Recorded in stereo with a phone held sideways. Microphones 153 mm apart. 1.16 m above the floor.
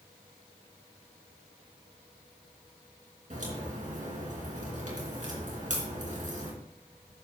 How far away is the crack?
About 3.5 m.